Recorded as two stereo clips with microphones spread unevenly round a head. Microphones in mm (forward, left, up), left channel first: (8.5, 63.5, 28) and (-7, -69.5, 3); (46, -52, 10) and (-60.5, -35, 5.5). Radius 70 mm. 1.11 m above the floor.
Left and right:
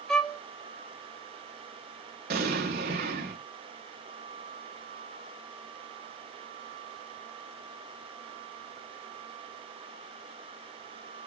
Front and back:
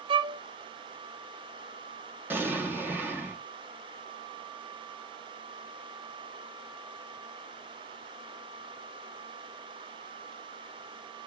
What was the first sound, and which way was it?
A violin, straight behind.